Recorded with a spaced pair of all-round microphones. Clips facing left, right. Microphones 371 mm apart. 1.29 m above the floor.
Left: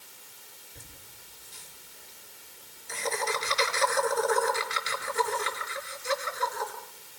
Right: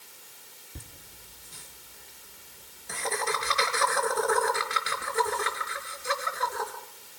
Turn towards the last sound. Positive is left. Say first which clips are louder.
# right 6 dB
turn(degrees=-75)  # may be behind; listen again after turning